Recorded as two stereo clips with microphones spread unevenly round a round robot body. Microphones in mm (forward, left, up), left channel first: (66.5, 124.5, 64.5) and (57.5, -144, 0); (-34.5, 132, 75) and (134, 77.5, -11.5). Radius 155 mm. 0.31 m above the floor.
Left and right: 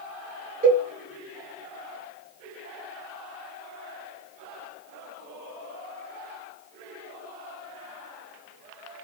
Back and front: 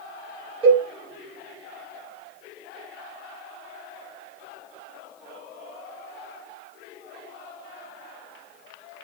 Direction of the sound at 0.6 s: 65° right.